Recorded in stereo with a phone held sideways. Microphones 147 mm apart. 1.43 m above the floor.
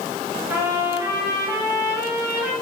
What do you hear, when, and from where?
0.5 s a trumpet: 15° right (ahead or behind), 5.5 m